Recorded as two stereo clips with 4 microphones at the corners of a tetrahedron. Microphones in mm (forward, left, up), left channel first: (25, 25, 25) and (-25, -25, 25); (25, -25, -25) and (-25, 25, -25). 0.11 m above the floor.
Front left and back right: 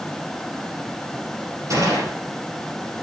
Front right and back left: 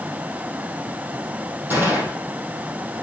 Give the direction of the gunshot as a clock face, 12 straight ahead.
6 o'clock.